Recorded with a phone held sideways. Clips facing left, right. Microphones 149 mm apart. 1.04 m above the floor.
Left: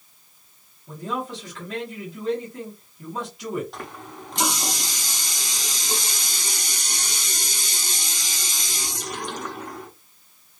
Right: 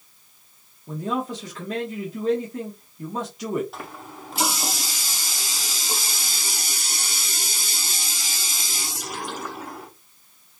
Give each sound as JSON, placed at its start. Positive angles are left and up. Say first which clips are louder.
{"t": 0.9, "sound": "a man speaking", "louder": "right 3 dB", "side_deg": -40, "distance_m": 1.3}
{"t": 3.7, "sound": "a running tap", "louder": "left 1 dB", "side_deg": -5, "distance_m": 0.8}